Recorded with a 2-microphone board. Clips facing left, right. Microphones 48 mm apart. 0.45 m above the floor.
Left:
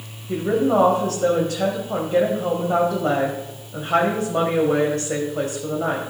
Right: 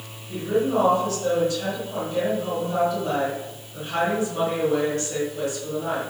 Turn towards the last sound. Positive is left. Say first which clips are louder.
# left 4 dB
turn(degrees=55)  # may be behind; listen again after turning